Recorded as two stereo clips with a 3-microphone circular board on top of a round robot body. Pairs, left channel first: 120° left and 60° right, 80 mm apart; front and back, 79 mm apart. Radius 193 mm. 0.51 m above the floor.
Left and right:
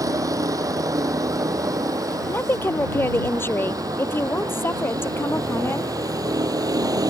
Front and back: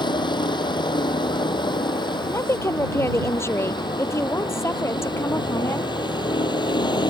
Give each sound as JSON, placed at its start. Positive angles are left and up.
{"t": 0.0, "sound": "a vehicle", "azimuth_deg": -15}
{"t": 2.3, "sound": "a woman speaking", "azimuth_deg": 60}